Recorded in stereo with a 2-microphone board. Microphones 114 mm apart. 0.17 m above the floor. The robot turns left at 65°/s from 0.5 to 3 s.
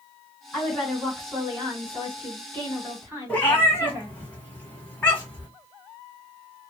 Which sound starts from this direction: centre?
A cat meowing, at 3.3 s.